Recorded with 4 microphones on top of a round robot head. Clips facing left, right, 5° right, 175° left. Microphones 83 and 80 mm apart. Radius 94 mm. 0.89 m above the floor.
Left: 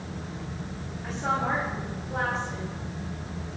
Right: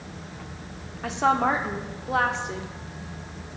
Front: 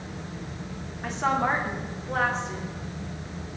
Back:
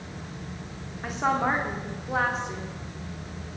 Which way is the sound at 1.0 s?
100° right.